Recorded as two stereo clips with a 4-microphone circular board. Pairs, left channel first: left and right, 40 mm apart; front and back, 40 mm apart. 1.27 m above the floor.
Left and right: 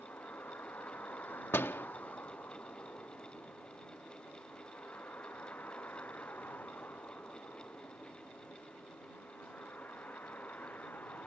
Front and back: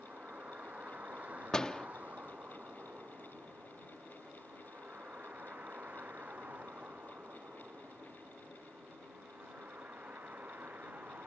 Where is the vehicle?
130° left; by 11.3 s 135° left.